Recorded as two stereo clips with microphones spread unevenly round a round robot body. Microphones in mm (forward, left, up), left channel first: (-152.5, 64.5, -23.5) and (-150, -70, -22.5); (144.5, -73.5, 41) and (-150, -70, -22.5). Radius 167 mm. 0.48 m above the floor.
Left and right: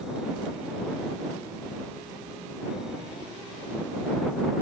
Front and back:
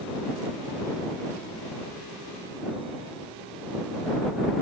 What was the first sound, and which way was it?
Only background noise.